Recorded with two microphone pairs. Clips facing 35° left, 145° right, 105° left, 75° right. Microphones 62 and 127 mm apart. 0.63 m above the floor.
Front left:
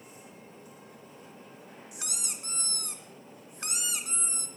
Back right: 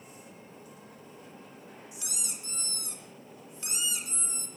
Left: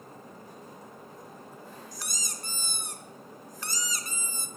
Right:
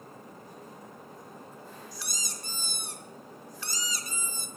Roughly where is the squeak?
Ahead left.